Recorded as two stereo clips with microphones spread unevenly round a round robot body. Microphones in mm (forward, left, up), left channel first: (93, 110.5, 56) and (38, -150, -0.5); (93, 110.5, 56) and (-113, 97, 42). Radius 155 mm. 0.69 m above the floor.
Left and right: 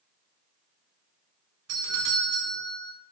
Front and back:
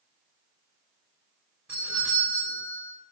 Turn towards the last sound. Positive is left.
turn(degrees=-95)